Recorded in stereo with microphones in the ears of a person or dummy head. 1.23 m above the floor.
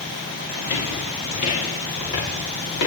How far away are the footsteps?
About 7.5 m.